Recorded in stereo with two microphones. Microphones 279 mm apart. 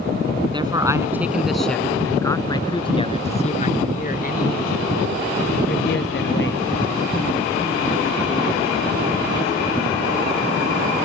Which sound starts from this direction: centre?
A man speaking, at 0.5 s.